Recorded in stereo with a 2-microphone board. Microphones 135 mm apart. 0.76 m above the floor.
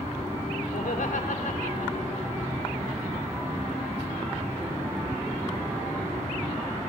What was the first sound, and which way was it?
Laughter, 75° left (ahead or behind).